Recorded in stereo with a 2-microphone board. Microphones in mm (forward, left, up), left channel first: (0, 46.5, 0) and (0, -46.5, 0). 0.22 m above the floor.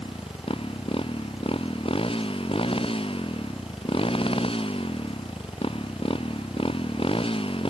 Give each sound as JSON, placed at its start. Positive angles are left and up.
{"t": 0.0, "sound": "a motorcycle", "side_deg": 85}